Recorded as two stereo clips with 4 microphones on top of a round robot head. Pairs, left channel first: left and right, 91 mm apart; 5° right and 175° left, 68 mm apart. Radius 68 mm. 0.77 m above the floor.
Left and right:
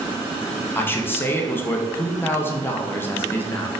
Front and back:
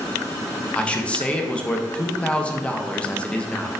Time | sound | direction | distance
0.8 | a man speaking | 50° left | 0.5 m